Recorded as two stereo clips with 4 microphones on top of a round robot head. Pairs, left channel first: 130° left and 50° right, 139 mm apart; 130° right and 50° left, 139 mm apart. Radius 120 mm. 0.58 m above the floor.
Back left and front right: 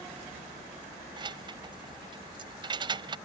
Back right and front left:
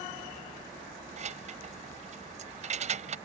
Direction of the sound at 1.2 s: 10° left.